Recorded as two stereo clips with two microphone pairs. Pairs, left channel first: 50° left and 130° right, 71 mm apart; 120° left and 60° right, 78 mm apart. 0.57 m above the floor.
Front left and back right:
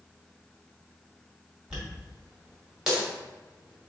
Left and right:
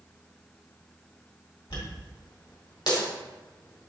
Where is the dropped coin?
145° left, 1.6 m.